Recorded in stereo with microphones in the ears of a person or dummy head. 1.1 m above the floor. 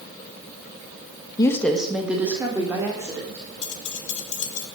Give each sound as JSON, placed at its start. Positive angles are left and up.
{"t": 1.4, "sound": "a woman speaking", "side_deg": 20, "distance_m": 0.9}
{"t": 3.6, "sound": "keys jangling", "side_deg": 45, "distance_m": 2.0}